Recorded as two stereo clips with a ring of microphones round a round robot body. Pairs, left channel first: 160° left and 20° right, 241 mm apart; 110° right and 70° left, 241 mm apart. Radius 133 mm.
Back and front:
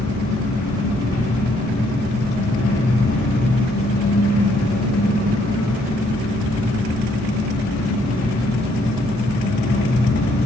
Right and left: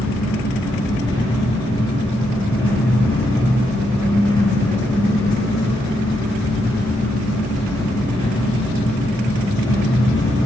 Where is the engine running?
175° left, 9 m.